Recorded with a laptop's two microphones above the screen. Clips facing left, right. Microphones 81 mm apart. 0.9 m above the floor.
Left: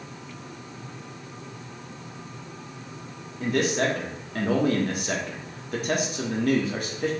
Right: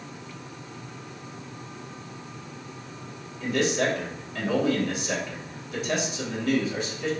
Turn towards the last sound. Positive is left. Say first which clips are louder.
# left 1 dB
turn(degrees=45)  # may be behind; listen again after turning